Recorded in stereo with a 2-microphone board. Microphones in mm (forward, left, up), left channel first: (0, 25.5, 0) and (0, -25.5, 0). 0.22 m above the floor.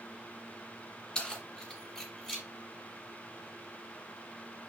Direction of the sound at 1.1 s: 15° left (ahead or behind).